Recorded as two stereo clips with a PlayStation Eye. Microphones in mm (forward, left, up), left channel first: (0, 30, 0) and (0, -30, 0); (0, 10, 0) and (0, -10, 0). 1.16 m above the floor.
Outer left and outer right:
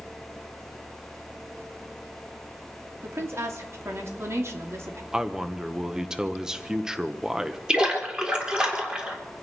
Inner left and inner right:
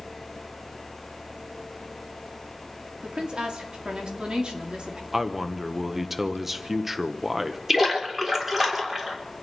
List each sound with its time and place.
3.0 s a woman speaking: 50° right (ahead or behind), 2.5 m
5.1 s a man speaking: 10° right (ahead or behind), 1.0 m
7.7 s a splash: 15° right (ahead or behind), 3.5 m